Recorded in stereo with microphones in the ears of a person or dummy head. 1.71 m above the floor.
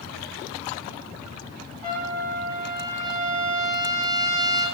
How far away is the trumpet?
About 3.5 m.